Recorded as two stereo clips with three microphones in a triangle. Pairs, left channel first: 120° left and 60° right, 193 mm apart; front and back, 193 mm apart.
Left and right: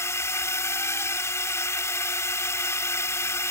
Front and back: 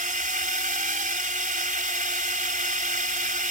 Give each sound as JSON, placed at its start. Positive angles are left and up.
{"t": 0.0, "sound": "a drone", "azimuth_deg": -170}